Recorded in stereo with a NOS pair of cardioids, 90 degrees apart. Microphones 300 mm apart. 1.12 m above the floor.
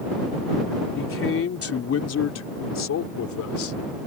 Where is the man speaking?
45° left; by 3.8 s 70° left.